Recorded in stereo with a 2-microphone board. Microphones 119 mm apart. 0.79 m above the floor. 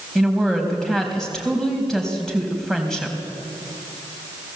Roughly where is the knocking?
I don't hear knocking.